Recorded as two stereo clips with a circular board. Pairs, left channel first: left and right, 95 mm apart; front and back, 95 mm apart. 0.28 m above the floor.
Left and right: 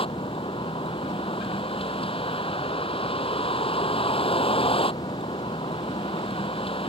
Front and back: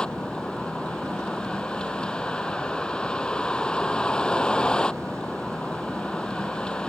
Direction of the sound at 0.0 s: 80° left.